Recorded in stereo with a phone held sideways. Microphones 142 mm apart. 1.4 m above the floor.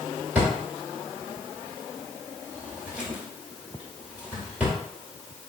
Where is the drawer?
10° right (ahead or behind), 1.4 m.